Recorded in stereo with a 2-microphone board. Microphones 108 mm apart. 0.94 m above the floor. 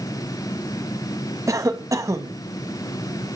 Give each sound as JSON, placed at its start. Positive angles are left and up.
{"t": 1.5, "sound": "a cough", "side_deg": -30, "distance_m": 1.2}